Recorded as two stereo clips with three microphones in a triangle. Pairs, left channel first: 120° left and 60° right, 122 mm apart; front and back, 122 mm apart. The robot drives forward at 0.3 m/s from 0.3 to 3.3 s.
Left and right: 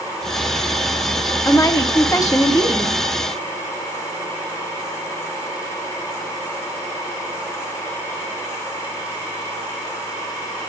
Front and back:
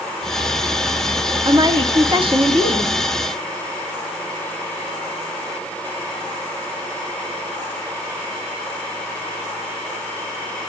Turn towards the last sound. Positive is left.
turn(degrees=175)